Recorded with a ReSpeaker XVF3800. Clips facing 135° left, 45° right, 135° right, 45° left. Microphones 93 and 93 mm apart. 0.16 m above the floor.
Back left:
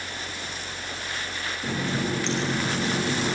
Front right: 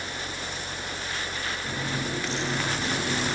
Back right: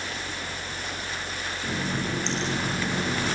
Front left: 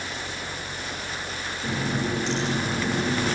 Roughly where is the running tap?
Behind left.